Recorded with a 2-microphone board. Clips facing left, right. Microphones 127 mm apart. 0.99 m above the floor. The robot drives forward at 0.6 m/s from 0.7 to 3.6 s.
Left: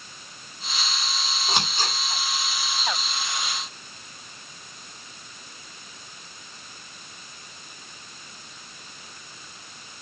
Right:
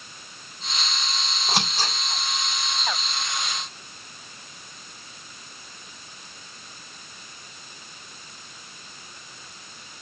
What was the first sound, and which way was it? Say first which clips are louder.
Scissors: right 1 dB; centre (ahead or behind).